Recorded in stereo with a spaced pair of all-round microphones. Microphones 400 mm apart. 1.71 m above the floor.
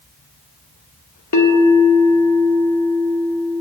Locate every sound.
1.3 s a bell: 40° left (ahead or behind), 0.9 m